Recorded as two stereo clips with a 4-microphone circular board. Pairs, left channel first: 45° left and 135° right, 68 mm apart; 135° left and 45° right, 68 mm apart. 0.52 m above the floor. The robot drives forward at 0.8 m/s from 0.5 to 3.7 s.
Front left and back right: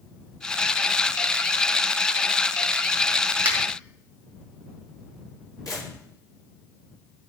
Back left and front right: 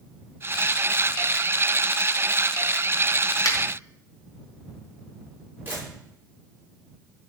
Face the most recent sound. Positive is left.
turn(degrees=15)